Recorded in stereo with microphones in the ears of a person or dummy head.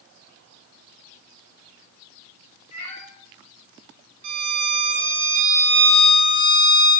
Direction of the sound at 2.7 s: 40° left (ahead or behind).